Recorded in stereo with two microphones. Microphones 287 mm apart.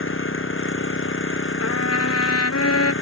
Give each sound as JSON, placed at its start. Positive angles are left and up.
{"t": 0.0, "sound": "an engine running", "side_deg": 45}
{"t": 1.6, "sound": "a trumpet", "side_deg": 60}